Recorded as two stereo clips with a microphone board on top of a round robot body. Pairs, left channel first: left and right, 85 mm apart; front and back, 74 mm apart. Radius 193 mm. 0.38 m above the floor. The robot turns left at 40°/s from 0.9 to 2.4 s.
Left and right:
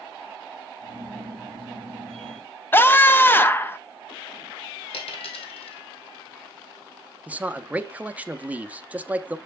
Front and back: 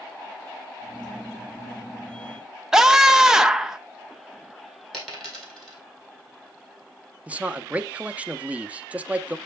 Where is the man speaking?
135° right, 0.8 m.